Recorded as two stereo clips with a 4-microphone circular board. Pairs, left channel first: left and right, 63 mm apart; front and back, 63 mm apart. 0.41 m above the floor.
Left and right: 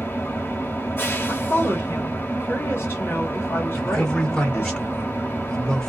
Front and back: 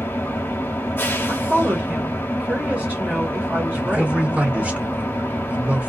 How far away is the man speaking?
About 0.8 m.